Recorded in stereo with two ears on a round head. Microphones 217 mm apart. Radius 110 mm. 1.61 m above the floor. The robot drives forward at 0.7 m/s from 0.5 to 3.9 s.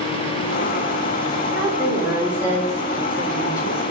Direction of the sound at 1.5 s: 10° right (ahead or behind).